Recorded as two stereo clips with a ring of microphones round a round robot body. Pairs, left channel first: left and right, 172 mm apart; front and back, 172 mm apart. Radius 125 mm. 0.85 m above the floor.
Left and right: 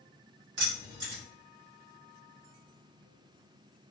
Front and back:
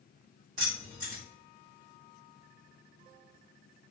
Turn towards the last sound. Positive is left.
turn(degrees=-120)